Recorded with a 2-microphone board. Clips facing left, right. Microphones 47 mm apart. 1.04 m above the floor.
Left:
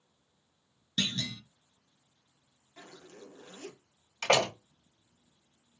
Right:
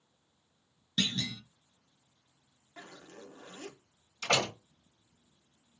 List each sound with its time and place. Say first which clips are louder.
1.0 s a clunk: even; 5° right (ahead or behind), 0.7 m
2.8 s a zipper: right 1 dB; 30° right (ahead or behind), 1.0 m
4.2 s a door slam: left 4 dB; 65° left (ahead or behind), 1.4 m